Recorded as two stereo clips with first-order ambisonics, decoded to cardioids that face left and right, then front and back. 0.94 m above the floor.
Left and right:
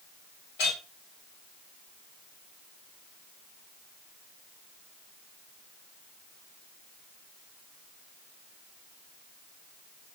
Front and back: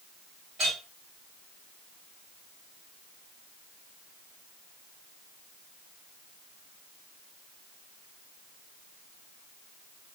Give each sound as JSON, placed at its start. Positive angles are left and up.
{"t": 0.6, "sound": "a clink", "azimuth_deg": 115, "distance_m": 1.5}